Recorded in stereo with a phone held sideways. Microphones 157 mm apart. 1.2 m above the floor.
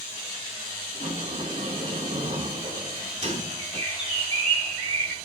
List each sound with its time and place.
0.9 s a sliding door: 40° right (ahead or behind), 2 m
3.6 s a bird: 35° right (ahead or behind), 2 m